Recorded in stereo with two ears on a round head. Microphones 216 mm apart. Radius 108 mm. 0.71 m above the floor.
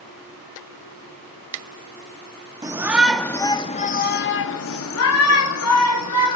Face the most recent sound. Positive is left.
turn(degrees=75)  # may be behind; listen again after turning